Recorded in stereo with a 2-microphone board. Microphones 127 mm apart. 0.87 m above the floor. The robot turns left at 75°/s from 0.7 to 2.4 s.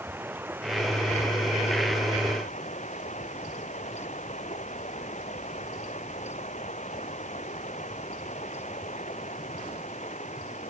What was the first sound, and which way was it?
Running water, 165° right.